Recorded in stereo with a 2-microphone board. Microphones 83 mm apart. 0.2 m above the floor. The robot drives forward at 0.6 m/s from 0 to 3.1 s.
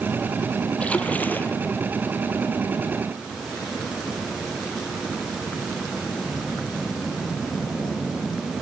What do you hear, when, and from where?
0.8 s a splash: 15° left (ahead or behind), 1.2 m; by 1.6 s 25° left (ahead or behind), 0.8 m